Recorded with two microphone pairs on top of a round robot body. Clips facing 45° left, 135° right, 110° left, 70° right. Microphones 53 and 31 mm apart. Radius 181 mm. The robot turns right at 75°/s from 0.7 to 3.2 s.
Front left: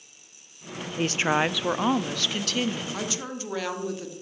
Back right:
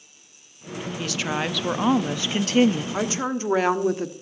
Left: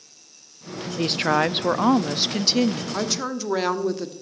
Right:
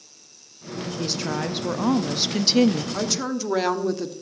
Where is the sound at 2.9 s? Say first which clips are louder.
Back right 7 dB, even; 175° left, 1.4 m; by 4.1 s 165° right, 1.4 m.